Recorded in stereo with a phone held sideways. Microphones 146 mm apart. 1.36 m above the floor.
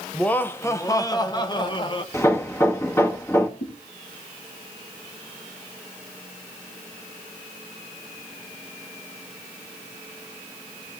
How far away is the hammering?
About 1.7 m.